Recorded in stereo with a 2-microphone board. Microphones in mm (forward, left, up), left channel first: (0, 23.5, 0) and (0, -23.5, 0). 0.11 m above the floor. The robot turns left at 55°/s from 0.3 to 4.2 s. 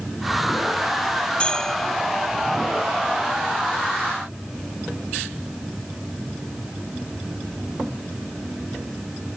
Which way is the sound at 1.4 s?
25° left.